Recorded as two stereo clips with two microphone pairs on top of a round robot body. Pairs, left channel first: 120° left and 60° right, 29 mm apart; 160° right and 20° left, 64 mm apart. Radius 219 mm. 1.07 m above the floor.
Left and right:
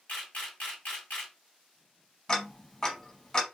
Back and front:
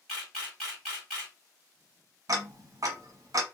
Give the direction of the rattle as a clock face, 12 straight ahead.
No rattle in this recording.